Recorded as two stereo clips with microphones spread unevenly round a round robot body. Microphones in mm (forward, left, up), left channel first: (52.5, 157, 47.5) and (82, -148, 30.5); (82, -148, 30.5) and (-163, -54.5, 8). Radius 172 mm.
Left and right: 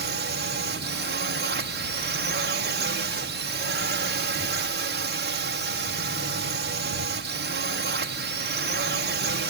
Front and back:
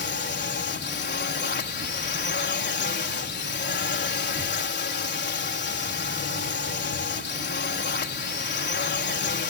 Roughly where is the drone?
Ahead right.